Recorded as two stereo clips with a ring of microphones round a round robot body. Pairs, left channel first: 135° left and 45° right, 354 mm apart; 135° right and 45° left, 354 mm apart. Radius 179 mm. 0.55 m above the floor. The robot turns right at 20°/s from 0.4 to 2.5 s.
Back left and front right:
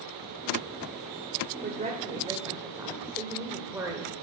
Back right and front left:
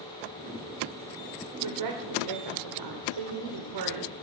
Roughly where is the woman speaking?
Ahead.